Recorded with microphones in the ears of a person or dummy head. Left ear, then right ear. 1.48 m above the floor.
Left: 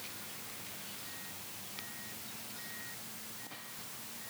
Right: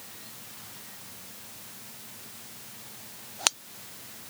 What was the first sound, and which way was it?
Only background noise.